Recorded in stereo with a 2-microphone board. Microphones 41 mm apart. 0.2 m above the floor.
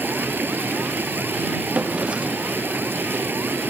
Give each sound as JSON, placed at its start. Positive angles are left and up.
{"t": 0.0, "sound": "running water", "side_deg": -55}
{"t": 1.7, "sound": "a drawer", "side_deg": -30}